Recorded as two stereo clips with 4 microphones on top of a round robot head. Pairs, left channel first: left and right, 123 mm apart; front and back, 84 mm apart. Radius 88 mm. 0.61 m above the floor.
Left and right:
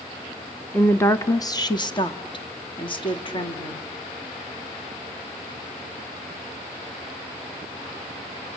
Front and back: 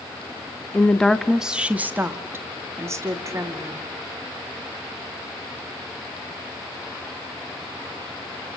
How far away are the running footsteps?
No running footsteps in this recording.